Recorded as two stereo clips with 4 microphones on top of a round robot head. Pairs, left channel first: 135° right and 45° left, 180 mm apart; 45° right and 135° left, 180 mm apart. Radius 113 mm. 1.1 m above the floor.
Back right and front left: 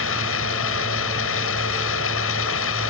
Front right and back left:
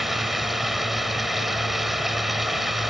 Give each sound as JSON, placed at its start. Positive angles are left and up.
{"t": 0.0, "sound": "running water", "azimuth_deg": -140}